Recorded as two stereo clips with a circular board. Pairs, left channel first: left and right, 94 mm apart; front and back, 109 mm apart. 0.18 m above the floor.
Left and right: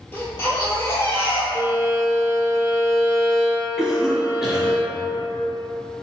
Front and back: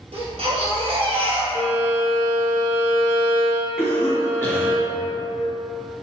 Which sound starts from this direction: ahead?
A cough, at 3.8 s.